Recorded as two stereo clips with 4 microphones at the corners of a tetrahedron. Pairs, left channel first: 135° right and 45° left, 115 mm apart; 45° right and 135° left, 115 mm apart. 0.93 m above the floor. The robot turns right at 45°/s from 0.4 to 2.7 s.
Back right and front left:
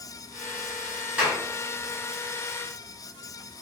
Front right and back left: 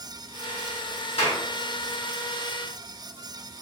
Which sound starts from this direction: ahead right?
A clap, at 1.2 s.